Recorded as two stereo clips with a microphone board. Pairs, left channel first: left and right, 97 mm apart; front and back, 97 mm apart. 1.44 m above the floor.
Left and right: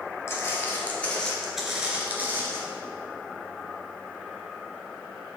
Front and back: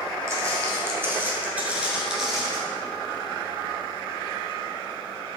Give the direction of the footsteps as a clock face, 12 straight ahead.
7 o'clock.